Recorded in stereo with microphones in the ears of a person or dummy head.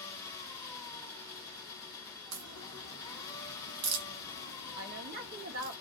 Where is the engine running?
30° left (ahead or behind), 1.5 m.